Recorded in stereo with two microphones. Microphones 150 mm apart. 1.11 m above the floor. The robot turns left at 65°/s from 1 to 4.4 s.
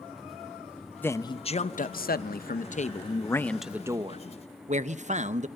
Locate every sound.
1.0 s a man speaking: 170° left, 0.8 m; by 5.5 s 50° right, 0.8 m